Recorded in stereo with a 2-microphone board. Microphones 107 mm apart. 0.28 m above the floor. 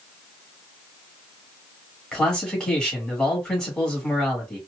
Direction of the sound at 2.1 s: 10° left (ahead or behind).